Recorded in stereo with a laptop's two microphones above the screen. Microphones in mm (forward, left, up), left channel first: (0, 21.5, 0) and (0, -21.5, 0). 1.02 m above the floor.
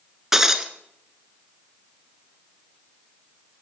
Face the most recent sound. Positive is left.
turn(degrees=-10)  # may be behind; listen again after turning